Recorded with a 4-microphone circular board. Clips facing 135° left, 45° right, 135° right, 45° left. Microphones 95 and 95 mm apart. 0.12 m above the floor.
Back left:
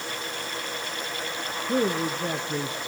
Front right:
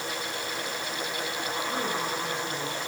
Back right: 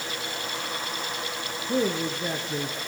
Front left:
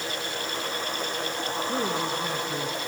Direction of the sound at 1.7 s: 160° left.